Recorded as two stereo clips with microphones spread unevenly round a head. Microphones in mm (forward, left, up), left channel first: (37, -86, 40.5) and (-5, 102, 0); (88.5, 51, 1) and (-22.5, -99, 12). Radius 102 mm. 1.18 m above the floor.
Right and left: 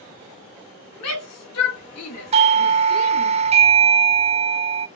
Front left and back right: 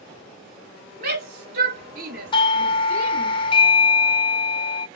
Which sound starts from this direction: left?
A doorbell, at 2.3 s.